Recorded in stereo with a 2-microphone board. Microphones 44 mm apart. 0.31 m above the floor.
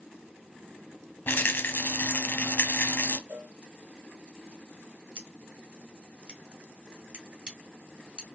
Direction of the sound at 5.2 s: 25° right (ahead or behind).